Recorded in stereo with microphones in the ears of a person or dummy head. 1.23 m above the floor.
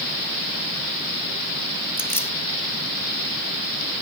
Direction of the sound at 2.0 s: 10° left (ahead or behind).